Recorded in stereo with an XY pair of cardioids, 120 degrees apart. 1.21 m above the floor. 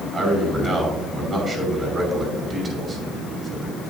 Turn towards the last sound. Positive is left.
turn(degrees=-35)